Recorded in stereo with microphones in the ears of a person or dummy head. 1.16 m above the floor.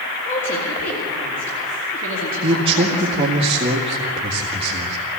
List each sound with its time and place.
0.2 s a woman speaking: 40° left (ahead or behind), 3.5 m
2.4 s a man speaking: 30° right (ahead or behind), 1.9 m